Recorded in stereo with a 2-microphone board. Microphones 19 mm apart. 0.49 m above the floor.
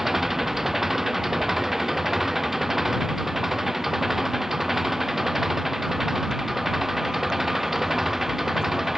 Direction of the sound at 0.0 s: 10° right (ahead or behind).